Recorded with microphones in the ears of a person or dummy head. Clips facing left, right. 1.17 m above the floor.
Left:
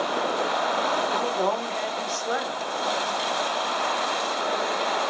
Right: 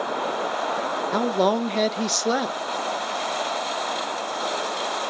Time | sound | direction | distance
1.1 | a woman speaking | 50° right (ahead or behind) | 0.9 m